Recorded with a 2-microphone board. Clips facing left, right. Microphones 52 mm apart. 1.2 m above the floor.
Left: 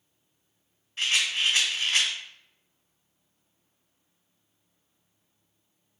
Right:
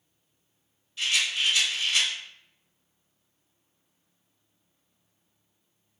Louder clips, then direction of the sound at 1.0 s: Left 1 dB; 35° left (ahead or behind).